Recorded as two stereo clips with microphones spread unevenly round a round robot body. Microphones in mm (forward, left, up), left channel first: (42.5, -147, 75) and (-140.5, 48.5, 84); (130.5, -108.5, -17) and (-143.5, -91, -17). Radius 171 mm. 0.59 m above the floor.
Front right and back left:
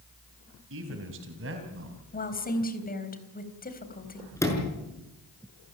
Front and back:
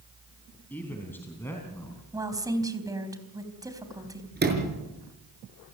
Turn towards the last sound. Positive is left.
turn(degrees=-125)